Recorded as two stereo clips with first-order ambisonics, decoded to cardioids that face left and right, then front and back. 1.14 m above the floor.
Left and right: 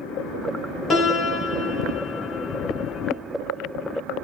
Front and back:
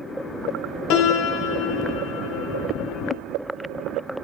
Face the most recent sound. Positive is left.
turn(degrees=20)